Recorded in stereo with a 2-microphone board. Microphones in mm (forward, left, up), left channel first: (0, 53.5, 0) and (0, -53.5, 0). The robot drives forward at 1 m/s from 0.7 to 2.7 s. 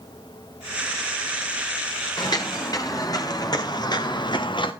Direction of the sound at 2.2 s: 40° left (ahead or behind).